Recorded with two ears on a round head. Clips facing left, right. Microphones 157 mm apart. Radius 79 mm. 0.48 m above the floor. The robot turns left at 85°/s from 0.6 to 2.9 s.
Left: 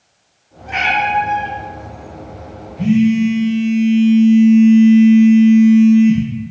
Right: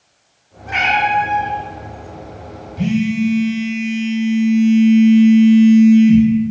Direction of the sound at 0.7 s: 170° right.